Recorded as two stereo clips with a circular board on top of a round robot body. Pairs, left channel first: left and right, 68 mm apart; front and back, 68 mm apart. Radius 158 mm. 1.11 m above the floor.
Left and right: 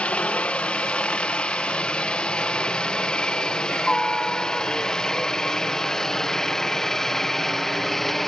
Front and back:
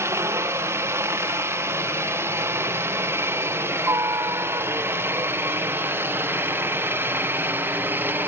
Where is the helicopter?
155° left; by 8.3 s 175° left.